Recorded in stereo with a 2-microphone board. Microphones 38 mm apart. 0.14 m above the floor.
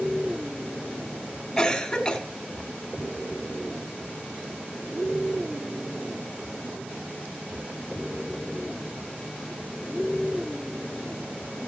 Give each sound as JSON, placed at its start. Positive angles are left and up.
{"t": 1.6, "sound": "a cough", "side_deg": 15, "distance_m": 1.2}